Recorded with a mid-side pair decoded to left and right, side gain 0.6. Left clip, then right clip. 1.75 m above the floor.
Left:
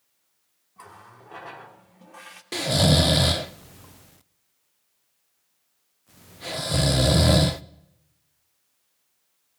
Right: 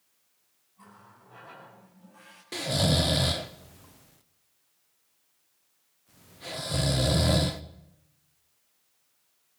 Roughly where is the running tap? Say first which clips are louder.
Left 7 dB; ahead left.